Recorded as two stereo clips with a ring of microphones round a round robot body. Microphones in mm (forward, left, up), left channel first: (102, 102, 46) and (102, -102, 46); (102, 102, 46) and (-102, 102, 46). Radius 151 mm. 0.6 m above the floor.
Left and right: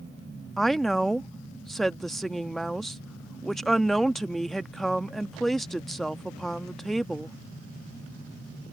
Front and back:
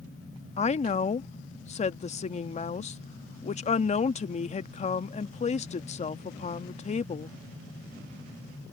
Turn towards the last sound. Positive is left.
turn(degrees=0)